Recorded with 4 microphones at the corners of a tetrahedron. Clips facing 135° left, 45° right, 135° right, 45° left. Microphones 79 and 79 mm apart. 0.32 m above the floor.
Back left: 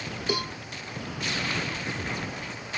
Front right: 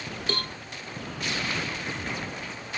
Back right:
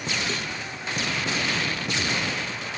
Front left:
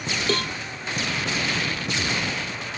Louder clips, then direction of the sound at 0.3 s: Back left 3 dB, front left 6 dB; 55° left.